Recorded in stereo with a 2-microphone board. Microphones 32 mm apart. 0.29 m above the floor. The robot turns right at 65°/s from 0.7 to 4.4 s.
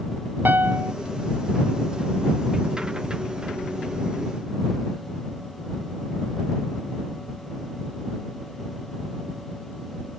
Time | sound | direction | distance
0.5 | a piano | 80° right | ?